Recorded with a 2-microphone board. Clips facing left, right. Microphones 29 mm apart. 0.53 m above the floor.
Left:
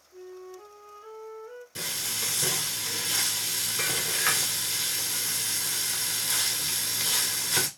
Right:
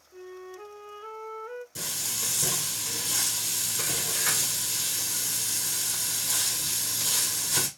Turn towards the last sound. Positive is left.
turn(degrees=35)  # may be behind; listen again after turning